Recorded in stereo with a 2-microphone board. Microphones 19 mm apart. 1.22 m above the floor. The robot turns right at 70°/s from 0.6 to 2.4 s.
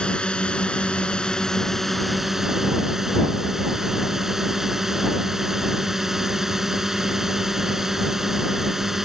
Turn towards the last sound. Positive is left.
turn(degrees=-160)